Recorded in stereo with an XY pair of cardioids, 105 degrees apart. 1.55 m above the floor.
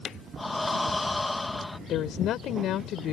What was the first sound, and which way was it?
Breathing, 10° left.